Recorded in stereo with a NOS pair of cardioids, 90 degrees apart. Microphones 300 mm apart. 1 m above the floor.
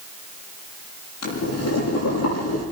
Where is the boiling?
60° left, 8 m.